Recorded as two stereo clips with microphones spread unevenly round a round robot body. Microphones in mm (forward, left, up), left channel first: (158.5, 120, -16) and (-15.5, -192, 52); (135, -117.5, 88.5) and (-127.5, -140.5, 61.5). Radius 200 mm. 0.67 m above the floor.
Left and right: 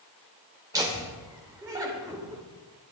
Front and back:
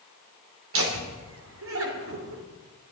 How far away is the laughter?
About 2.5 m.